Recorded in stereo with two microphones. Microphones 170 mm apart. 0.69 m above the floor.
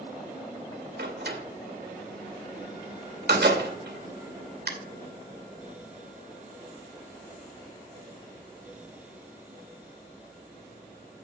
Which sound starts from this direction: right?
A door slam, at 1.0 s.